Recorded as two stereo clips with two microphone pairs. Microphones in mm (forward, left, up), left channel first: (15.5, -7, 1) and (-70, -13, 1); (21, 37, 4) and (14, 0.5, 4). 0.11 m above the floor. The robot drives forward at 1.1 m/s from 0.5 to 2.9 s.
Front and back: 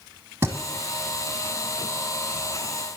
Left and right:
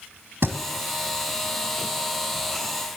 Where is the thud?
115° right, 1.8 m.